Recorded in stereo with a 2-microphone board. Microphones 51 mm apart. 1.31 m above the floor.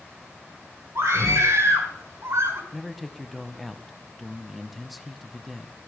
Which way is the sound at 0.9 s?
75° right (ahead or behind).